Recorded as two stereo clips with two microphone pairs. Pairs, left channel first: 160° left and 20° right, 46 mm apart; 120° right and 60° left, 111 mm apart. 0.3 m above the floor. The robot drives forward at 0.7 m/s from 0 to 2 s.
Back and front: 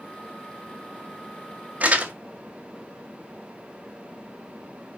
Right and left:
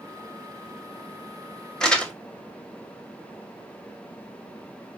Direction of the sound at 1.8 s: 40° right.